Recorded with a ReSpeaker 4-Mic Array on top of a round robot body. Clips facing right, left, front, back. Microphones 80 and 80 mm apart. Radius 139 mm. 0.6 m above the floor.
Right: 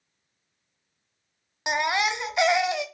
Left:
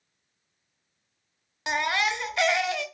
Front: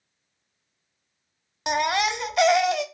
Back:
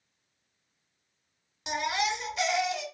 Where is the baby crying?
20° right, 0.5 m.